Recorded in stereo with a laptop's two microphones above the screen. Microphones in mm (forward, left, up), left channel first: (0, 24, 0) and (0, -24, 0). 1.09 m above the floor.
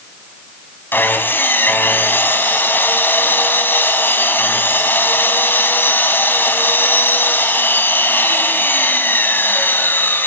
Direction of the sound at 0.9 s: 45° left (ahead or behind).